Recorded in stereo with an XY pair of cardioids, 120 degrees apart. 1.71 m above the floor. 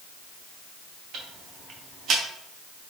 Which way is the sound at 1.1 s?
55° right.